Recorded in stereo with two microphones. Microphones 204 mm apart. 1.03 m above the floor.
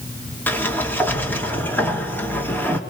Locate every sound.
0.5 s a sliding door: 10° left (ahead or behind), 3 m